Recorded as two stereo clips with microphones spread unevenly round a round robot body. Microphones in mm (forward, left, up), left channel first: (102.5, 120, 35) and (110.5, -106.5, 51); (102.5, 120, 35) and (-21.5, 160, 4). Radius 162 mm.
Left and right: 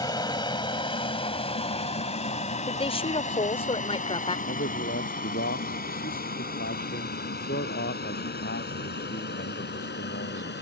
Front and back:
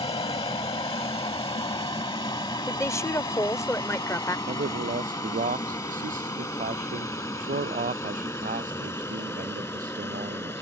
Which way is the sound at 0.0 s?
25° left.